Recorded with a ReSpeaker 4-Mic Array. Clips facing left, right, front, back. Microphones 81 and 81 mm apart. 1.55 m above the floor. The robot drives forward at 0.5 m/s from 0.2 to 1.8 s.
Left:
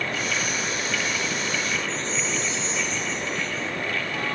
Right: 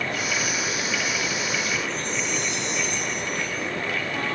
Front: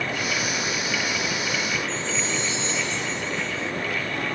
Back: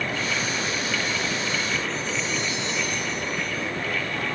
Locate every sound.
1.9 s a chime: 65° right